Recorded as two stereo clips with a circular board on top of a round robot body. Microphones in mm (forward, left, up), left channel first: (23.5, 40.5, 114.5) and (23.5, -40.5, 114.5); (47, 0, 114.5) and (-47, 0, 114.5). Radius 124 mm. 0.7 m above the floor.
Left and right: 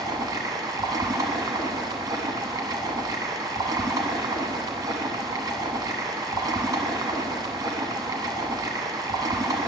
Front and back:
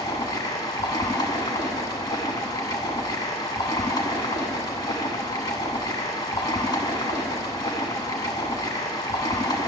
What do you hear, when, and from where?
0.0 s running water: 50° right, 0.8 m